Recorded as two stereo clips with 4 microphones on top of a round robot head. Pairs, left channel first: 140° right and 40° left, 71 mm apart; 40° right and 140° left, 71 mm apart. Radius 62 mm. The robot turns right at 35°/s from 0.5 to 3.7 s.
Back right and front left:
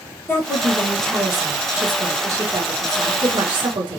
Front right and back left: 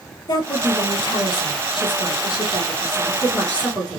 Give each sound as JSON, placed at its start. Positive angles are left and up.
{"t": 0.3, "sound": "a woman speaking", "azimuth_deg": -75, "distance_m": 1.6}